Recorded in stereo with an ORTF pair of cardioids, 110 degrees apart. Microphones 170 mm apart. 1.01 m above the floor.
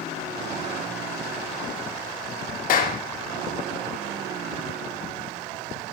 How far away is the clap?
About 1.4 m.